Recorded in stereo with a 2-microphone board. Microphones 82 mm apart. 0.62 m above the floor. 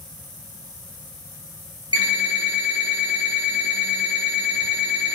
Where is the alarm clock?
60° right (ahead or behind), 1.3 m.